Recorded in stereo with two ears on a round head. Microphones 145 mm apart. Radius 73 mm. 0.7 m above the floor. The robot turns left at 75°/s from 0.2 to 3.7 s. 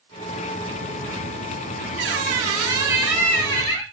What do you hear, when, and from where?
2.0 s a squeak: 95° right, 1.0 m; by 3.8 s 135° left, 1.0 m